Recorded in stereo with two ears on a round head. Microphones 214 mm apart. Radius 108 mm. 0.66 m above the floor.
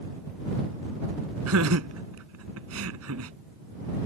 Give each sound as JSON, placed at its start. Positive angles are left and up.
{"t": 1.5, "sound": "laughter", "side_deg": -65}